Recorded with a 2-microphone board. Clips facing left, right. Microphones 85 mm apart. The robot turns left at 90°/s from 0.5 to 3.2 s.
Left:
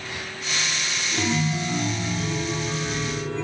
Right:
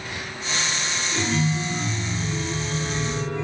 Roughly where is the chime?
Behind.